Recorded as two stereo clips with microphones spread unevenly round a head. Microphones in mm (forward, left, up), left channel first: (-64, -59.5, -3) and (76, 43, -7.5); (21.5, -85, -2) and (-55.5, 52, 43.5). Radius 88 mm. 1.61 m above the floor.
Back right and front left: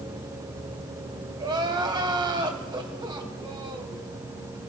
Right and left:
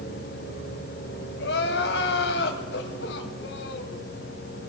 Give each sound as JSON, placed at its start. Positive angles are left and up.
{"t": 1.4, "sound": "crying", "azimuth_deg": -30, "distance_m": 3.0}